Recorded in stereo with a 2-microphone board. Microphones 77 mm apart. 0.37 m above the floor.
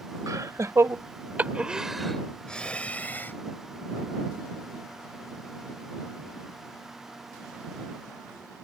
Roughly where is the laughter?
Right.